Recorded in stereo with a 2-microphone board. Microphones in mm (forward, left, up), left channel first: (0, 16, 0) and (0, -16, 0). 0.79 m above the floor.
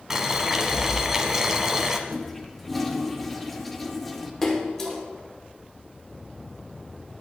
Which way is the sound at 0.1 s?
15° right (ahead or behind).